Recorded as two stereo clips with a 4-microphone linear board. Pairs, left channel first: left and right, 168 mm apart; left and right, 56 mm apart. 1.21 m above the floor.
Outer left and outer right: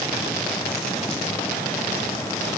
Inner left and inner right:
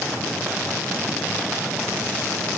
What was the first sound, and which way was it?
Only background noise.